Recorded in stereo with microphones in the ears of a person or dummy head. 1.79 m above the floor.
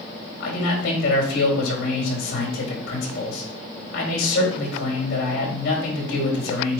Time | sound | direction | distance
0.4 | a man speaking | 50° left (ahead or behind) | 4 m